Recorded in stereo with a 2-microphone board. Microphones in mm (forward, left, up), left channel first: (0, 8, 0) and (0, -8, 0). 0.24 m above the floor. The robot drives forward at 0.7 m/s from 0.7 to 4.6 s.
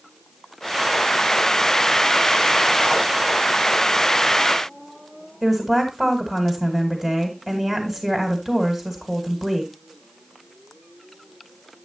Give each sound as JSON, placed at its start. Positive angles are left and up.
{"t": 5.4, "sound": "a woman speaking", "side_deg": -30, "distance_m": 1.5}